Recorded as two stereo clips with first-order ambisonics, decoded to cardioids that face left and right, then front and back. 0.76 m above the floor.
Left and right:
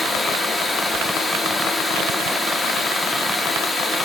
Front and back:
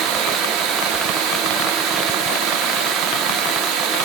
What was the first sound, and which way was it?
Running water, 160° left.